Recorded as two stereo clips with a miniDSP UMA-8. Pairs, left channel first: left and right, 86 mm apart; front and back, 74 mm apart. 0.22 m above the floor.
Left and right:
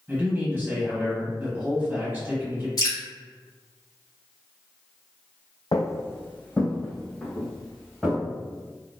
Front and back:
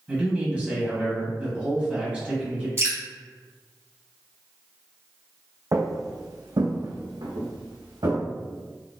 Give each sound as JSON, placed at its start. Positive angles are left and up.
{"t": 0.1, "sound": "a man speaking", "azimuth_deg": -125, "distance_m": 1.5}
{"t": 2.8, "sound": "dripping", "azimuth_deg": 130, "distance_m": 1.5}
{"t": 5.7, "sound": "footsteps", "azimuth_deg": 135, "distance_m": 0.5}